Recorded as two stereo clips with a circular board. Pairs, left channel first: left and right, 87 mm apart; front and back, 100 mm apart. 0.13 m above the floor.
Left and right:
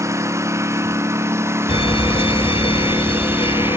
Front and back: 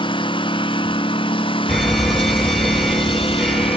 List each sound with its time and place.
0.0 s a lawn mower: 35° right; by 3.8 s 25° right
1.7 s an alarm: 90° left